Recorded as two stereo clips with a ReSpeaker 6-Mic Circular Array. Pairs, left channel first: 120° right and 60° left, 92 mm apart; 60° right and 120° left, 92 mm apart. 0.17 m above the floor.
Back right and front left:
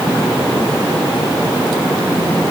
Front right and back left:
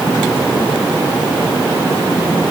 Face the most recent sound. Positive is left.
No sound to turn to.